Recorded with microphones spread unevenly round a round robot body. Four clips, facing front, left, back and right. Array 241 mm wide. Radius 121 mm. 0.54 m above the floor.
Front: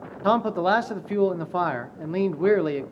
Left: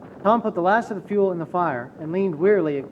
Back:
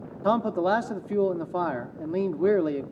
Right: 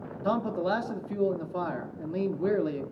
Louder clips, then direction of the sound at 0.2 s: Left 9 dB, front 2 dB; 110° left.